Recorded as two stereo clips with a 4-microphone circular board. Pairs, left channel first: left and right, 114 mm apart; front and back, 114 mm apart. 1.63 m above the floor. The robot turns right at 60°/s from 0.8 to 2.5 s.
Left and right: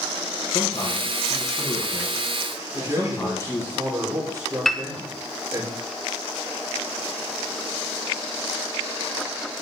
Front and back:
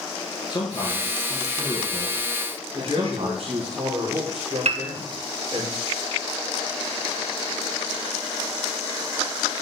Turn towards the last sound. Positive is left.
turn(degrees=180)